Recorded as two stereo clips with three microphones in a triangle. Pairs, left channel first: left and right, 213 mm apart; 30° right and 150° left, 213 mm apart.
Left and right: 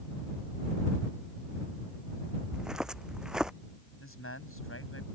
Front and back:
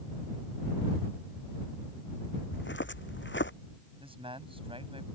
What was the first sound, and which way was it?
Footsteps, 5° right.